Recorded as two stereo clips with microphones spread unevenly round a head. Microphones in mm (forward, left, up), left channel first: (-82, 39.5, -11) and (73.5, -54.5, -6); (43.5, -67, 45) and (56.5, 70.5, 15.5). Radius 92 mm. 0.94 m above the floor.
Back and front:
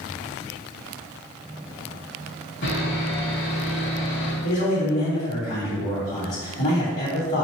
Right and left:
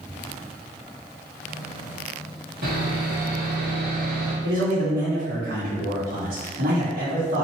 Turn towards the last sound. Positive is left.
turn(degrees=95)